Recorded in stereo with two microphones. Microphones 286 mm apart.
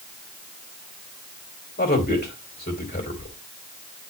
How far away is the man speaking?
About 2.5 m.